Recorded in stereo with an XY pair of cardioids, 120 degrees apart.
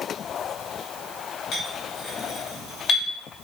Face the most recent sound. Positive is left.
turn(degrees=55)